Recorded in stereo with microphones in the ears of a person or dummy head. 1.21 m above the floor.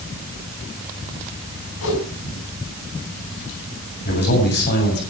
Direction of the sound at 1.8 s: 75° left (ahead or behind).